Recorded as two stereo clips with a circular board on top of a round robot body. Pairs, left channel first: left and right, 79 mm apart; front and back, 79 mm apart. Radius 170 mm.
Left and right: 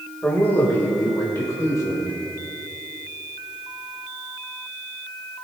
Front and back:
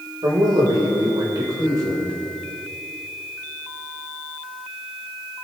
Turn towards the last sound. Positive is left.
turn(degrees=135)